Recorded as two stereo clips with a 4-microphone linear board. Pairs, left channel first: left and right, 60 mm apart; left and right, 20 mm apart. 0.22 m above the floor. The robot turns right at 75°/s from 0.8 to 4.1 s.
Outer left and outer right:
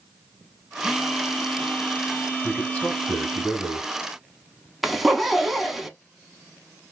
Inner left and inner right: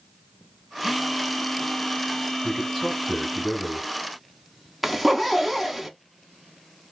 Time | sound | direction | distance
0.8 | a phone buzzing | 15° right (ahead or behind) | 0.6 m
2.4 | a man speaking | 20° left (ahead or behind) | 1.7 m
4.8 | a zipper | 5° right (ahead or behind) | 0.6 m